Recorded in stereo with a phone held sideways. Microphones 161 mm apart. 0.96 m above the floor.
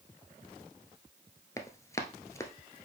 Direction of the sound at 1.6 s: 20° left (ahead or behind).